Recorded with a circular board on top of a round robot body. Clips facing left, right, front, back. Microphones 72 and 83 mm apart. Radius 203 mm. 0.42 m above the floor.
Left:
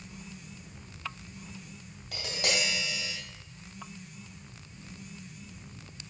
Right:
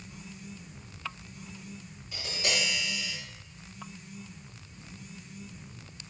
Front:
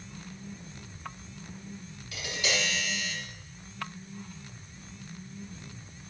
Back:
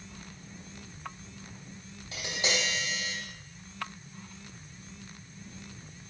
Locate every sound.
2.1 s tapping: 120° left, 3 m